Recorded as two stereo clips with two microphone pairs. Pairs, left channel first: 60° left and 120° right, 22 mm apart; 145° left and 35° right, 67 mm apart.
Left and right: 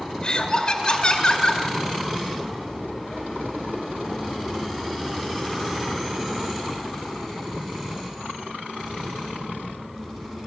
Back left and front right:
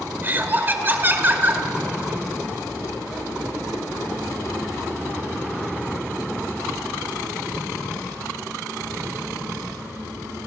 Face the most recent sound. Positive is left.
turn(degrees=20)